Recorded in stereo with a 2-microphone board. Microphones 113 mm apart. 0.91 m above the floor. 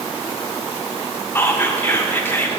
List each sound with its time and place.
1.4 s whispering: 20° left (ahead or behind), 0.8 m